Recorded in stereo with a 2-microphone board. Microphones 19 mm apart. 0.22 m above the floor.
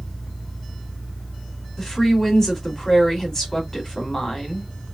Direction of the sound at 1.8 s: 25° left (ahead or behind).